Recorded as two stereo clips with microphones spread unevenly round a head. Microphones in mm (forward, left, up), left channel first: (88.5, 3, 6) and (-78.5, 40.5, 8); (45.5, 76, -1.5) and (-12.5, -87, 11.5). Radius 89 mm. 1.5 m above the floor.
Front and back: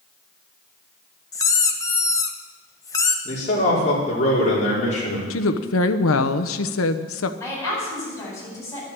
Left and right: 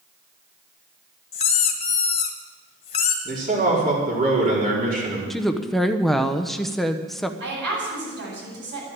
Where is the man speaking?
65° right, 5 m.